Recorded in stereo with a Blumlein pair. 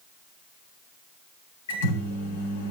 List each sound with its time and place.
1.7 s a microwave: 65° left, 4 m